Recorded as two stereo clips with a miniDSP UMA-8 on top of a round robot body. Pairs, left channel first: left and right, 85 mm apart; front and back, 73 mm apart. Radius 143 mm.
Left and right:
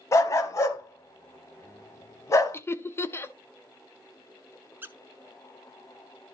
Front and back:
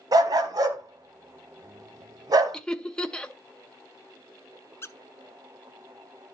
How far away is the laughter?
About 0.9 m.